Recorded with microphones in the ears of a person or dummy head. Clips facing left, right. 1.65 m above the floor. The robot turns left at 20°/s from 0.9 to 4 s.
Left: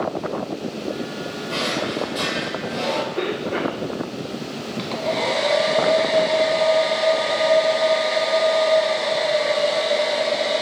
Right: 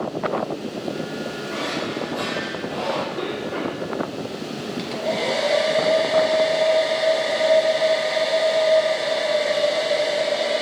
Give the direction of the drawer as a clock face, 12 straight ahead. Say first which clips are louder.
Left 4 dB; 10 o'clock.